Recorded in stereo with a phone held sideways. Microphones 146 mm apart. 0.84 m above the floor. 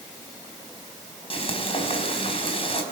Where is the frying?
40° left (ahead or behind), 4.5 m.